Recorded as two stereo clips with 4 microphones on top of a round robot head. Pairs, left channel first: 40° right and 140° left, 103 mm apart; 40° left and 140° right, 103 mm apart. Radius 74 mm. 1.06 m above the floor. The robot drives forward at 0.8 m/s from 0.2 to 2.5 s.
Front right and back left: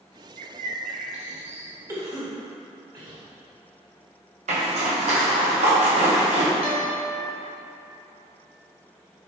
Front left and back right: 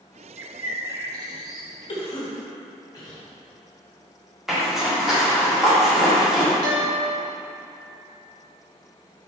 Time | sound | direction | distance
0.4 | a bird | 145° left | 0.5 m
1.9 | a cough | 80° left | 2 m
4.5 | a zipper | 130° left | 1.9 m
6.6 | a guitar | 175° left | 2 m